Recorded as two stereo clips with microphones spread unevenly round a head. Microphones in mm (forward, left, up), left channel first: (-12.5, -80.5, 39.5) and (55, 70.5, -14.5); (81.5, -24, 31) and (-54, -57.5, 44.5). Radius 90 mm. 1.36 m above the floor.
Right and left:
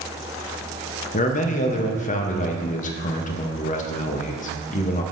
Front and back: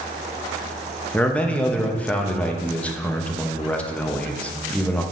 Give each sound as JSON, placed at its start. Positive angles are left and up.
{"t": 1.1, "sound": "a man speaking", "azimuth_deg": -65, "distance_m": 0.8}